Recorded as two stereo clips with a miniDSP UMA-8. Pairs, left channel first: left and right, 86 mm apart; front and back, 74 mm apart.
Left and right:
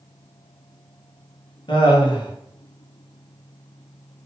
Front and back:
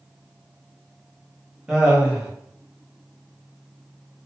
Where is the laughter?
105° left, 1.0 m.